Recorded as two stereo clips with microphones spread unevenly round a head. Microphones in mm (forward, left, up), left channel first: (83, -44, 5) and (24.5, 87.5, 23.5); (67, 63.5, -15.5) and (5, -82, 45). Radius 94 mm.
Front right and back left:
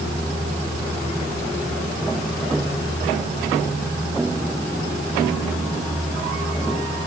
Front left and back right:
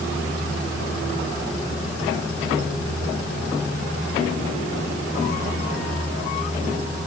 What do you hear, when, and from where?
Only background noise.